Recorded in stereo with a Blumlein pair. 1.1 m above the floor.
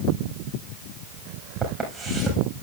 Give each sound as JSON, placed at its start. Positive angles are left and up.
{"t": 1.6, "sound": "footsteps", "azimuth_deg": -5, "distance_m": 4.5}